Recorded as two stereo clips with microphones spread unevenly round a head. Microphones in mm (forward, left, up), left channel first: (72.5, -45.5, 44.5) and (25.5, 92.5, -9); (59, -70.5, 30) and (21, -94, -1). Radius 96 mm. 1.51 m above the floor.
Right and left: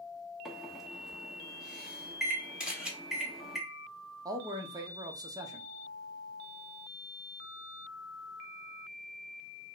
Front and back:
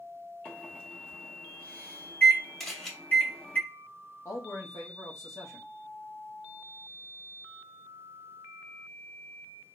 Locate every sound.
0.5 s a microwave: 10° left, 1.1 m
2.6 s a camera shutter: 5° left, 1.5 m
4.2 s a man speaking: 40° left, 0.9 m